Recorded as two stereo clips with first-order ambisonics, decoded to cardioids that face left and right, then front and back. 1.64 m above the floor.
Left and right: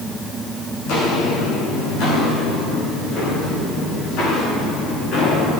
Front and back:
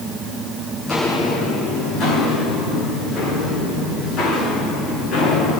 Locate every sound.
0.9 s footsteps: 70° left, 6 m; by 5.6 s 60° left, 13 m